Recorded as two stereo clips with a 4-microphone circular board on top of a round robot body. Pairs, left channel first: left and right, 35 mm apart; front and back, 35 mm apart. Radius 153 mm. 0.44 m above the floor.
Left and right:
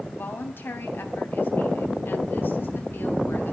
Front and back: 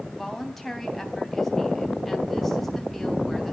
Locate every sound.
0.1 s a woman speaking: 85° left, 4 m